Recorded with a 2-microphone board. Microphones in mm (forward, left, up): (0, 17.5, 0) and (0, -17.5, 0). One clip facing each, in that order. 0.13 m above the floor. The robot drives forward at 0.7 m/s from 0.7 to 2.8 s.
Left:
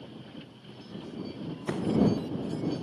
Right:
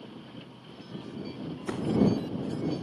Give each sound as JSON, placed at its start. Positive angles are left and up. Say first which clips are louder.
{"t": 1.7, "sound": "a door slam", "louder": "even", "side_deg": 5}